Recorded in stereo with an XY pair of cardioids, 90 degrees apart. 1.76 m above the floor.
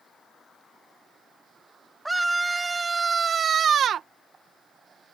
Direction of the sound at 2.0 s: 10° right.